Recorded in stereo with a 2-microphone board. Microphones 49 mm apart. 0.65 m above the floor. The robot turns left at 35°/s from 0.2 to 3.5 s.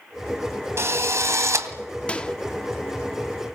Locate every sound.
0.8 s a drill: 65° right, 2 m; by 1.7 s 95° right, 2 m
2.1 s a microwave: 25° left (ahead or behind), 1.2 m; by 2.4 s 20° left (ahead or behind), 1.2 m